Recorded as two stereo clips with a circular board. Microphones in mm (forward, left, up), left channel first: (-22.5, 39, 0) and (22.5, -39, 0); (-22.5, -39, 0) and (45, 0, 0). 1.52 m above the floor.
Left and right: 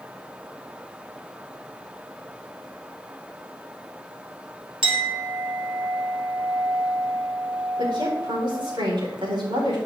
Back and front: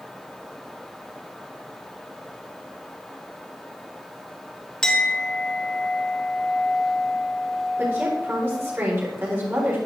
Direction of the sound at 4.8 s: 70° right.